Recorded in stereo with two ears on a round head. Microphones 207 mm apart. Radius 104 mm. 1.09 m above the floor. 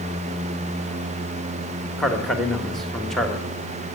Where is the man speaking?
Centre (ahead or behind), 1.1 m.